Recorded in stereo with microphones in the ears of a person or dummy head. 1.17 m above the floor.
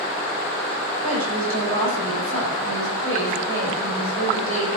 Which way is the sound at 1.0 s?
85° right.